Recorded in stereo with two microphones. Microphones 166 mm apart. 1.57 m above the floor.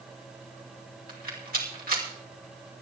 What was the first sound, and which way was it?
A rattle, 65° right (ahead or behind).